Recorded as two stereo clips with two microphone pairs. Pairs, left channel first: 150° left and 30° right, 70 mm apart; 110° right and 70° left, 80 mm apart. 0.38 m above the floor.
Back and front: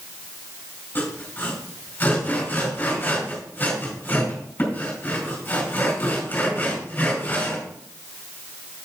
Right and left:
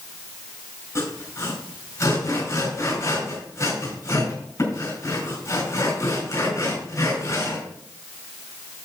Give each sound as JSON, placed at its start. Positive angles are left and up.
{"t": 0.9, "sound": "sawing", "azimuth_deg": -145, "distance_m": 4.0}